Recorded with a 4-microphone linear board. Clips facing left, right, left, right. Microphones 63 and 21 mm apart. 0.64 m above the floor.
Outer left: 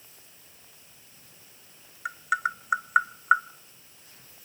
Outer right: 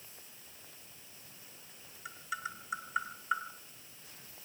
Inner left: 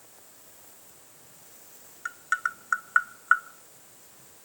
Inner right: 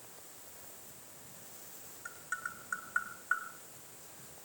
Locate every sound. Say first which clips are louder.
2.0 s tapping: outer left 13 dB, inner left 12 dB; 65° left (ahead or behind), 0.5 m